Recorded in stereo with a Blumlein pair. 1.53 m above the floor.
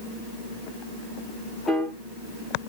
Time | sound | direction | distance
1.7 | a piano | 10° left | 1.2 m